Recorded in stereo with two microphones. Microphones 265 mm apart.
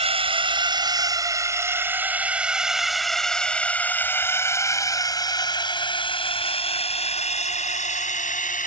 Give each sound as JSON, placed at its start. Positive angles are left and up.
{"t": 0.0, "sound": "a drone", "side_deg": -20}